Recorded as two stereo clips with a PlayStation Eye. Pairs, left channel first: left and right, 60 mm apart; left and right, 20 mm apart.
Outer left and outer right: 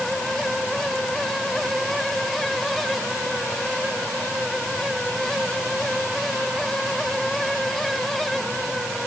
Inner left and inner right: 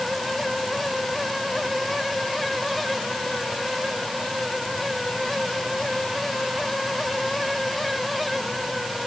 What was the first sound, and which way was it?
Only background noise.